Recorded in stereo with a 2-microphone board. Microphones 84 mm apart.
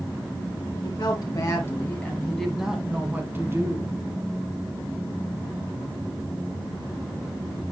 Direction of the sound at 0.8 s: 50° left (ahead or behind).